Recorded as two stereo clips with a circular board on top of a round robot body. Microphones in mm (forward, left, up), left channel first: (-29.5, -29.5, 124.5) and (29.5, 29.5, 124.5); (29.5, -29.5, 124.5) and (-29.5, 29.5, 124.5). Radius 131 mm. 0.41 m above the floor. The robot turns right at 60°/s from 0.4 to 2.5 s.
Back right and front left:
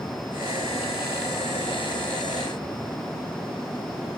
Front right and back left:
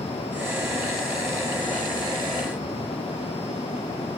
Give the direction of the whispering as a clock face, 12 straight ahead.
I don't hear whispering.